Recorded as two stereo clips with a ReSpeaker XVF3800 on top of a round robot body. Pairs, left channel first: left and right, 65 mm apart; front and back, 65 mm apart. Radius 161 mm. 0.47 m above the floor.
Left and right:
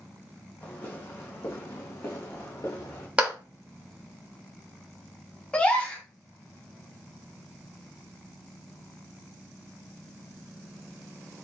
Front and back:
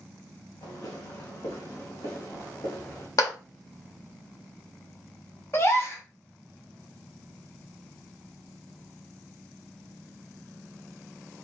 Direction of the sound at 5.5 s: 25° left.